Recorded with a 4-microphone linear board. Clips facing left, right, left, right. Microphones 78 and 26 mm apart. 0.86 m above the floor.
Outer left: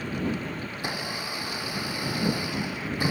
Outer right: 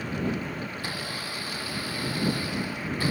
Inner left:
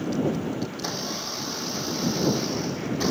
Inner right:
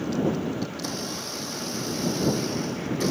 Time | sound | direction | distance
0.7 | a blender | 20° left (ahead or behind) | ?